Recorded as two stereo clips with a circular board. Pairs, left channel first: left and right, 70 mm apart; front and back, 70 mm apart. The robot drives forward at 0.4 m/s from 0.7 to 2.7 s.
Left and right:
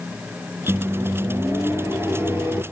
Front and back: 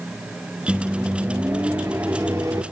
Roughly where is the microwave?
Behind right.